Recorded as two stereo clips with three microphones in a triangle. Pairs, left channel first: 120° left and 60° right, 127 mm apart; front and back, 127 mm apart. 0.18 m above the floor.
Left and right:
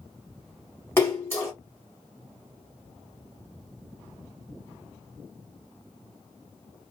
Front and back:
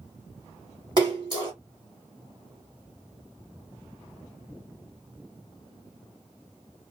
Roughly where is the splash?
Behind.